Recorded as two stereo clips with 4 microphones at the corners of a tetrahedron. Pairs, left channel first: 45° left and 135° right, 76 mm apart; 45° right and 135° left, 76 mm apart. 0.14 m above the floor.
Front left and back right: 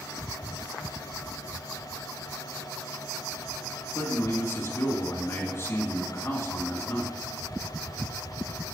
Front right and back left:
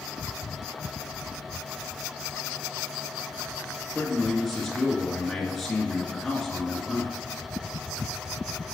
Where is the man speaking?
40° left, 1.8 m.